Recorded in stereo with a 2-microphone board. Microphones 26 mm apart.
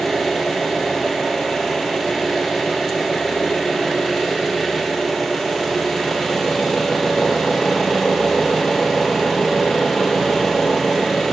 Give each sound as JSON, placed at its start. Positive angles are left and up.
{"t": 0.0, "sound": "an engine running", "side_deg": 15, "distance_m": 2.5}